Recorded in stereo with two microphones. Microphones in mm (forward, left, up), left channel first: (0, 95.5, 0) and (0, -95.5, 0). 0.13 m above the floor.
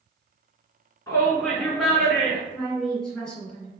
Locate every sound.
1.1 s a shout: 20° left (ahead or behind), 1.5 m; by 2.4 s 20° right (ahead or behind), 1.5 m
2.5 s a woman speaking: 5° left (ahead or behind), 1.7 m